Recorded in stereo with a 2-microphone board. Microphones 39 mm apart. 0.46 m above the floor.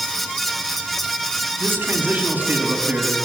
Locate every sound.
1.6 s a man speaking: 60° right (ahead or behind), 3.5 m; by 3.2 s 35° right (ahead or behind), 4.5 m